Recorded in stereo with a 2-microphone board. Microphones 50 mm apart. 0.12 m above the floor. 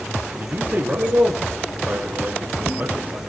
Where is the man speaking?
40° right (ahead or behind), 2.5 m.